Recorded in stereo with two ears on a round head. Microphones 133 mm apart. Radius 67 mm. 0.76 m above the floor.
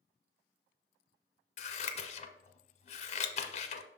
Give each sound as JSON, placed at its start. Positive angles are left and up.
{"t": 1.6, "sound": "scissors", "side_deg": 45, "distance_m": 0.8}